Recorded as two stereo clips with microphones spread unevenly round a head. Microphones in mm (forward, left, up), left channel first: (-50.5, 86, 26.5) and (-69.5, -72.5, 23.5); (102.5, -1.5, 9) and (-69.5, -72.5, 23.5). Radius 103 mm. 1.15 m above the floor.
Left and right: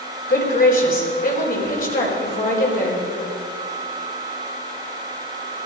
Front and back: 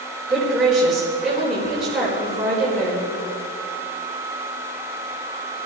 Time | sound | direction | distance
0.3 | a woman speaking | 115° left | 5 m